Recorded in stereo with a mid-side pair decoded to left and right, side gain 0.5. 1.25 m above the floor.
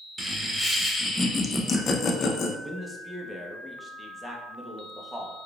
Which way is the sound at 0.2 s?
5° right.